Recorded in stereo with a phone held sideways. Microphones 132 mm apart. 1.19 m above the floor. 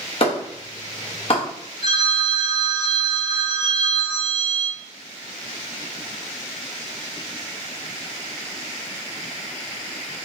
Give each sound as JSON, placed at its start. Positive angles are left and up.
{"t": 0.2, "sound": "a clap", "side_deg": 45, "distance_m": 1.1}
{"t": 1.8, "sound": "a phone ringing", "side_deg": 65, "distance_m": 1.8}